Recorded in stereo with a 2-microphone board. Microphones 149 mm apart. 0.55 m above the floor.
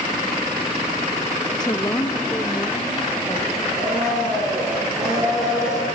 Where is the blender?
5° right (ahead or behind), 8 m.